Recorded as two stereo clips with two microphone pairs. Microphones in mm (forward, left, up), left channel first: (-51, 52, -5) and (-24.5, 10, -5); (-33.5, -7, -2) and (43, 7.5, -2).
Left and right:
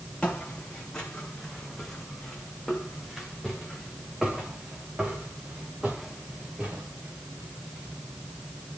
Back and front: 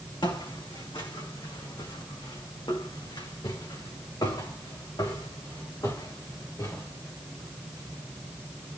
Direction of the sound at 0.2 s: 175° right.